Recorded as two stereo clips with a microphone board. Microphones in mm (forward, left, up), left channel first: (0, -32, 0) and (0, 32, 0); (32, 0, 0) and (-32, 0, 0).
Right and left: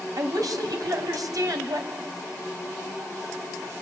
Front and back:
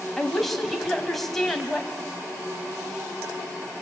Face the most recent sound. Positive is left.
turn(degrees=85)